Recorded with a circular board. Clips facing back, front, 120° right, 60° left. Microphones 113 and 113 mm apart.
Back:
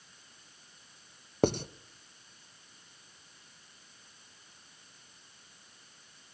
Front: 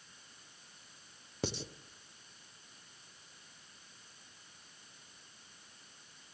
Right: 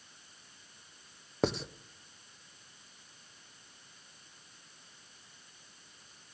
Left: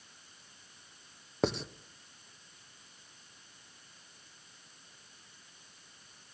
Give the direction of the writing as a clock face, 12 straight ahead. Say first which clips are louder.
Back 12 dB, even; 7 o'clock.